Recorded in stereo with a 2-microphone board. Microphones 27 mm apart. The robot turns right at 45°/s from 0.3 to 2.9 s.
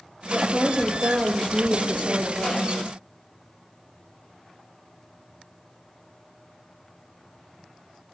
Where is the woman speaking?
175° right, 4 m; by 2.6 s 70° right, 4 m.